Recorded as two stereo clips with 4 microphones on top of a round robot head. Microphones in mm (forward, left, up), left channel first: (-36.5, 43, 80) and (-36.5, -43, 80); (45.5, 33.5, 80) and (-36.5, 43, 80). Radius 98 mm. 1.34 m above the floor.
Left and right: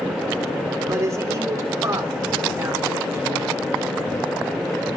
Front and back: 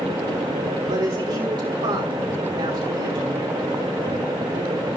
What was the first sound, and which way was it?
A man speaking, 145° right.